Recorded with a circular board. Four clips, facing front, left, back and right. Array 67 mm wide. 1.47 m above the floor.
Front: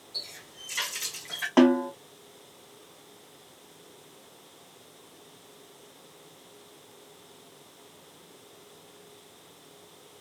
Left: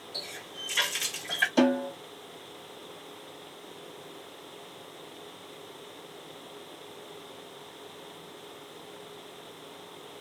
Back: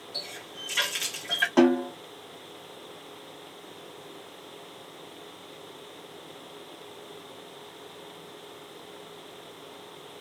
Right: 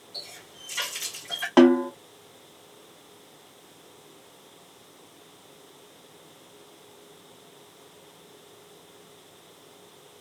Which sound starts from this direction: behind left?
A running tap, at 0.1 s.